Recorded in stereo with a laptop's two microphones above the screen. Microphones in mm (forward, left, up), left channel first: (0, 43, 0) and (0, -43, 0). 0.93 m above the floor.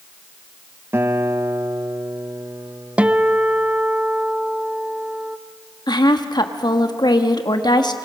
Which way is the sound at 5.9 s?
55° left (ahead or behind).